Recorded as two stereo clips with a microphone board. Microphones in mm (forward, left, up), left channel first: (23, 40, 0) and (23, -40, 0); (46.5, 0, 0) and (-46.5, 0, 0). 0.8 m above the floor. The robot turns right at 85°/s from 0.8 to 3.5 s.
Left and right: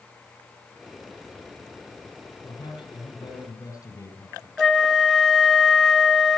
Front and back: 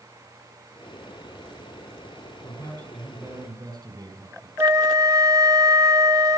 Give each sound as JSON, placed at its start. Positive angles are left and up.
{"t": 2.4, "sound": "a man speaking", "azimuth_deg": 45, "distance_m": 5.5}
{"t": 4.6, "sound": "a flute", "azimuth_deg": 175, "distance_m": 0.6}